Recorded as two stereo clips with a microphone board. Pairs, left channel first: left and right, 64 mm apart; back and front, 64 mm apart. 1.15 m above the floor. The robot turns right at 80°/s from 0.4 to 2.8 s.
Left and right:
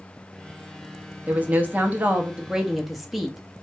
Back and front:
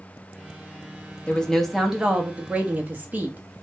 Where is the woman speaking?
125° right, 0.5 m; by 3.5 s 5° right, 0.5 m.